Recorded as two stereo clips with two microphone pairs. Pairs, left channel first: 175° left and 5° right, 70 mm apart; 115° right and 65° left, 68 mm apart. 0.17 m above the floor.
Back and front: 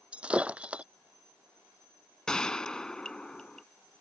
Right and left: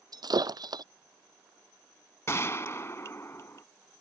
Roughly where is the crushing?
I don't hear crushing.